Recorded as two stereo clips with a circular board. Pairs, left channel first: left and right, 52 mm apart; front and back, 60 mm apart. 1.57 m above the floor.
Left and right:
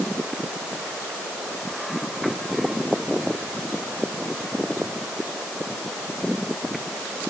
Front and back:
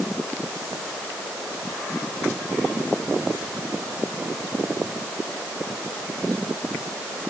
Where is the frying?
I don't hear frying.